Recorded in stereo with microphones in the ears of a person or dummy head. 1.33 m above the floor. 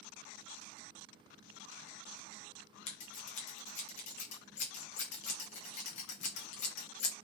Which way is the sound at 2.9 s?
45° left (ahead or behind).